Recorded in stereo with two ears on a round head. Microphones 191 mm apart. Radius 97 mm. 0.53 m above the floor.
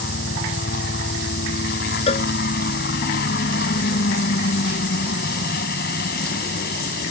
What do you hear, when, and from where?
0.0 s a helicopter: 50° left (ahead or behind)
2.1 s a cowbell: 35° left (ahead or behind)